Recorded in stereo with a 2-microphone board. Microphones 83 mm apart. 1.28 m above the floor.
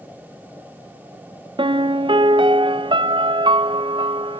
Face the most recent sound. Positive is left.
turn(degrees=-85)